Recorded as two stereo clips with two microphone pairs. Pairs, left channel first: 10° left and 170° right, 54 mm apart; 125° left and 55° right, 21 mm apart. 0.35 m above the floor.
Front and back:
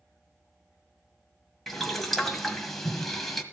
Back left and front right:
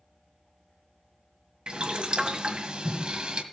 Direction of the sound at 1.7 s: 80° right.